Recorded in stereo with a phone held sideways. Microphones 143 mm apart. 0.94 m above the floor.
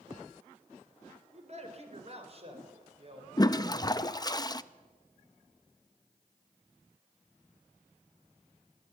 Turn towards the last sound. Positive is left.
turn(degrees=25)  # may be behind; listen again after turning